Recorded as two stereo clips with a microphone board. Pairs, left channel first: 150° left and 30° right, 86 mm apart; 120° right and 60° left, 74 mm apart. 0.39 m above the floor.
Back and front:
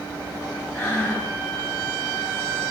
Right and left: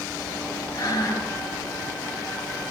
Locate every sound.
0.7 s breathing: 145° right, 2 m